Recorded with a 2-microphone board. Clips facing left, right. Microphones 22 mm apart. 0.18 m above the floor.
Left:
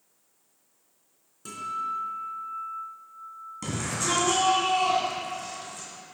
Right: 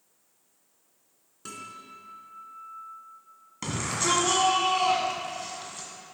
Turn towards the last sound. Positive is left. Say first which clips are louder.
# right 2 dB
turn(degrees=-30)  # may be behind; listen again after turning